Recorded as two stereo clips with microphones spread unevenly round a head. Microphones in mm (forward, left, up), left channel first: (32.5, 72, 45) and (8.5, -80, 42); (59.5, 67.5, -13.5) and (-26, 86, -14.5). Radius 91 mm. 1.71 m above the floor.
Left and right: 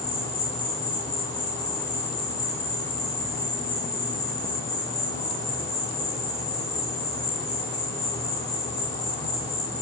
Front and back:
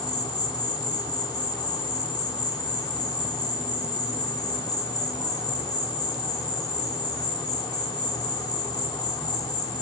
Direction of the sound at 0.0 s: 15° left.